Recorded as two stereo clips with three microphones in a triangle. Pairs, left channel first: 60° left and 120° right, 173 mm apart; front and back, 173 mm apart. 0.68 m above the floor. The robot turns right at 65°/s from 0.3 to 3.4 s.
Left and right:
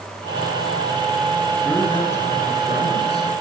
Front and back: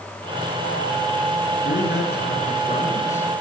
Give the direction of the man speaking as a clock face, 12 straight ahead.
1 o'clock.